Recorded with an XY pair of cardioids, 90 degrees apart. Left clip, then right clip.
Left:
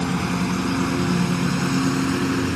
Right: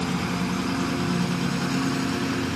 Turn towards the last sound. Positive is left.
turn(degrees=45)